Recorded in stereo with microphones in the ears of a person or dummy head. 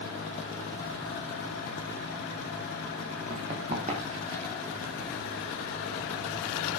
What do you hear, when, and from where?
3.3 s running footsteps: 40° right (ahead or behind), 4.5 m; by 4.5 s 35° right (ahead or behind), 5.5 m